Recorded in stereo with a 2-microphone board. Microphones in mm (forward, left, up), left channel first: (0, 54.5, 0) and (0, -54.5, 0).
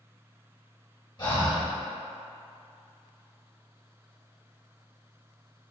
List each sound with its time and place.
1.2 s breathing: 45° left (ahead or behind), 1.1 m